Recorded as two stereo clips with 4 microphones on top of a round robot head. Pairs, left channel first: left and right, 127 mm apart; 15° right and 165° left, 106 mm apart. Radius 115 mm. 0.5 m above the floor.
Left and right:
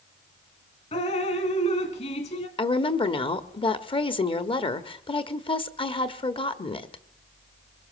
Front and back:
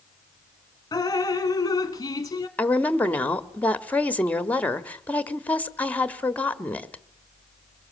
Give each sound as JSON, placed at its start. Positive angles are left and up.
{"t": 0.9, "sound": "dripping", "azimuth_deg": 45, "distance_m": 1.4}
{"t": 2.6, "sound": "a woman speaking", "azimuth_deg": 60, "distance_m": 1.3}